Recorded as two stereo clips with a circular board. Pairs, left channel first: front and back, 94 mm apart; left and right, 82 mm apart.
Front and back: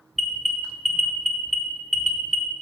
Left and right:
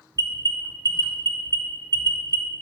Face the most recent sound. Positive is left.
turn(degrees=-90)